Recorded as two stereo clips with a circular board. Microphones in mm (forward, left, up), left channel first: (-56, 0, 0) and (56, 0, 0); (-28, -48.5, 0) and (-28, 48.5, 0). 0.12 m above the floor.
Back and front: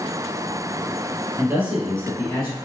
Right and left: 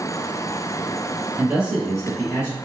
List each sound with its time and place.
1.4 s a man speaking: 40° left, 1.3 m; by 2.6 s 140° right, 1.5 m